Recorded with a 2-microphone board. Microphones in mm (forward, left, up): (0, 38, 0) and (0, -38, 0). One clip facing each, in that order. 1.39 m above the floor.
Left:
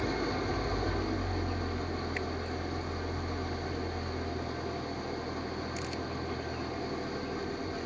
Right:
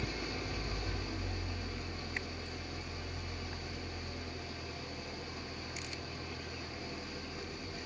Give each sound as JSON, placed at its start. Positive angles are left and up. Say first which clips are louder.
{"t": 0.0, "sound": "an engine running", "louder": "left 8 dB", "side_deg": 50, "distance_m": 1.4}